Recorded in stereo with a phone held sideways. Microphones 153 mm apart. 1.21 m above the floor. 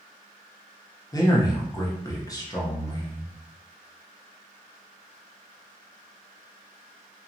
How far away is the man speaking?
About 0.8 m.